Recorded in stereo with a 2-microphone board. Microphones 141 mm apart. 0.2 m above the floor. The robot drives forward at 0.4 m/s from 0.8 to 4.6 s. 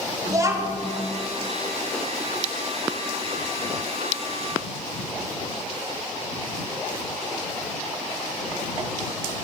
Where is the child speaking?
25° right (ahead or behind), 0.9 m.